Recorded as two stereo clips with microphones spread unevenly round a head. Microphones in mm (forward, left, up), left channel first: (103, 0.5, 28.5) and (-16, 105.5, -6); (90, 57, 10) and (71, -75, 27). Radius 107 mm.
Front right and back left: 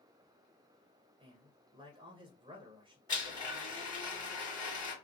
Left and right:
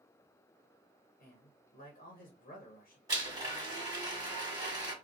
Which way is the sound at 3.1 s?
70° right.